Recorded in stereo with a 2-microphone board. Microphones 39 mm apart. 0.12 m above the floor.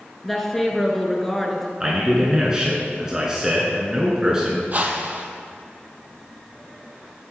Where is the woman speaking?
5° left (ahead or behind), 1.3 m.